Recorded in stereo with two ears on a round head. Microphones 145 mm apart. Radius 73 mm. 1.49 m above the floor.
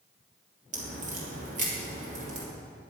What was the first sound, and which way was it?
A crack, 45° right (ahead or behind).